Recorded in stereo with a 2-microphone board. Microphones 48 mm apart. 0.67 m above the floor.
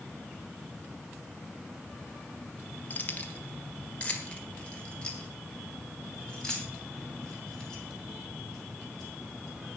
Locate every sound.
2.9 s keys jangling: 40° left (ahead or behind), 1.0 m; by 9.8 s 15° left (ahead or behind), 4.5 m